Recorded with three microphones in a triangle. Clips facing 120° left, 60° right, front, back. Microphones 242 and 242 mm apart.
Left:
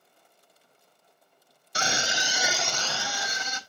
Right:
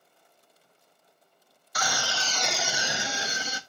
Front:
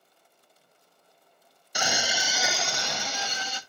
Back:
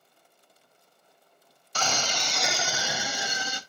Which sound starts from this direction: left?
A scream, at 1.8 s.